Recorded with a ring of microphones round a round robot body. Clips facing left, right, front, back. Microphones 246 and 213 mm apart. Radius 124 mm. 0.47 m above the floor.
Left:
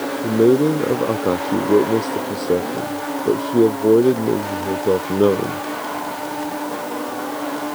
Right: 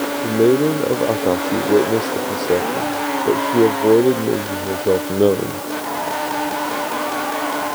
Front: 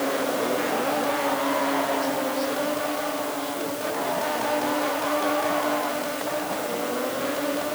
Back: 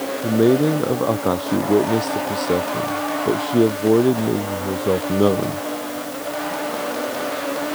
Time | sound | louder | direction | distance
0.2 | a man speaking | left 1 dB, back 10 dB | 165° left | ?